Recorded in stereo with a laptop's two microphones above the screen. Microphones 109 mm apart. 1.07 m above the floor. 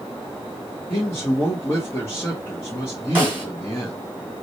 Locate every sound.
0.9 s a man speaking: 20° left (ahead or behind), 0.8 m
3.1 s a snare drum: 20° right (ahead or behind), 1.6 m